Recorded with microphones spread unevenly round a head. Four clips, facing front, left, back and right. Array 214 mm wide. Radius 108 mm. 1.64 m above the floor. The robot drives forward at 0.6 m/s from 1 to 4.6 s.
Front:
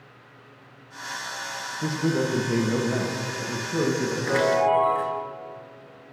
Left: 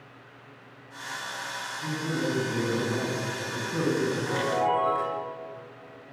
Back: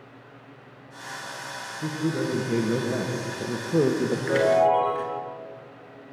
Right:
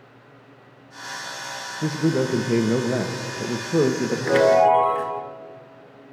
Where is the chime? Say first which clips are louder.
Right 14 dB, back 1 dB; 100° right, 1.0 m; by 5.2 s 110° right, 1.0 m.